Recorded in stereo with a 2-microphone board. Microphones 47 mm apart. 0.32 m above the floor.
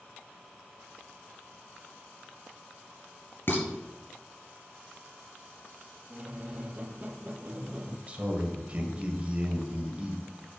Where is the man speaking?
30° right (ahead or behind), 1.8 m.